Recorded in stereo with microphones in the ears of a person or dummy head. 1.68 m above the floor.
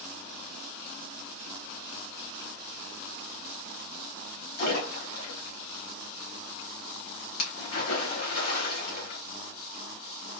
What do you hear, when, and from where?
4.6 s a splash: 60° left (ahead or behind), 1.6 m